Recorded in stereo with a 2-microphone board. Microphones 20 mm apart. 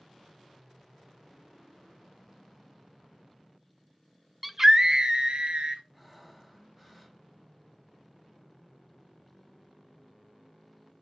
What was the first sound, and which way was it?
A scream, 10° right (ahead or behind).